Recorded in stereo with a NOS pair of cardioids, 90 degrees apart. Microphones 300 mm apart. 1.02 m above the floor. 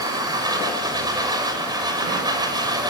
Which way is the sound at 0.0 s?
15° right.